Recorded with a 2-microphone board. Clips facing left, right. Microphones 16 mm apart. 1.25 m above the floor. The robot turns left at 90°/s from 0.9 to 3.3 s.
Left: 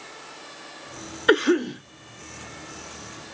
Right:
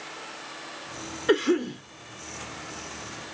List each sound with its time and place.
1.3 s a cough: 110° left, 2.5 m; by 1.8 s 60° left, 2.5 m